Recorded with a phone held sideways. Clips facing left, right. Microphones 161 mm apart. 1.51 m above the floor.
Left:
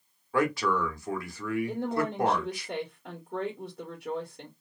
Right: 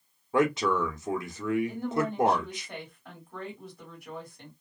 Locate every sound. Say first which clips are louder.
0.3 s a man speaking: right 2 dB; 20° right (ahead or behind), 0.9 m
1.7 s a woman speaking: even; 75° left (ahead or behind), 1.3 m